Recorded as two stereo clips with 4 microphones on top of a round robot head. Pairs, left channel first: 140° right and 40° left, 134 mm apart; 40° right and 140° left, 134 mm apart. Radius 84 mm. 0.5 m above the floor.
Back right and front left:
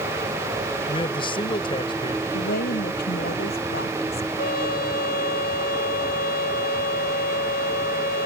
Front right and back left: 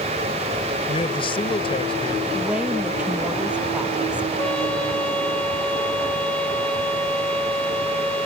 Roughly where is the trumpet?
Behind right.